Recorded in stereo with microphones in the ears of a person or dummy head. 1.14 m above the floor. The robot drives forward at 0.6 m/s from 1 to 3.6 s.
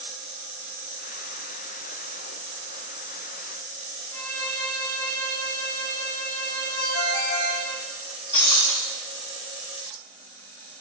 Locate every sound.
4.1 s a violin: 10° left (ahead or behind), 1.4 m
6.8 s a ringtone: 45° left (ahead or behind), 3 m
8.3 s breaking glass: 25° left (ahead or behind), 1.4 m